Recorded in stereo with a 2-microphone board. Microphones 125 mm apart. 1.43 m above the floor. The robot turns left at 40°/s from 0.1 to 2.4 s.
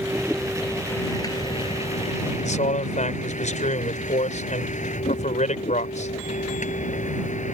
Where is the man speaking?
75° left (ahead or behind).